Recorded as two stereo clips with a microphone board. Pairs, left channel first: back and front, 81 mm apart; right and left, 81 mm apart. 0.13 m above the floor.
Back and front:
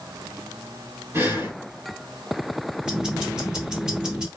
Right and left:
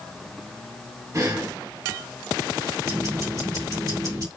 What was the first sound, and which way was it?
Breathing, 50° left.